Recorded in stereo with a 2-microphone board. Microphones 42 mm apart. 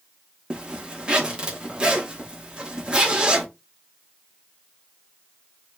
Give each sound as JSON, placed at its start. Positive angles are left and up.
{"t": 0.5, "sound": "a zipper", "side_deg": -25, "distance_m": 0.8}